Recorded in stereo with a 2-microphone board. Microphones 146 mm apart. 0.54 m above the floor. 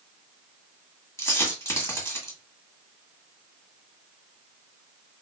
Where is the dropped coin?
20° left (ahead or behind), 1.7 m.